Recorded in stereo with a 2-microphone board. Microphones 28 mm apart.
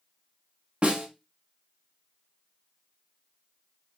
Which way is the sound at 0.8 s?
40° right (ahead or behind).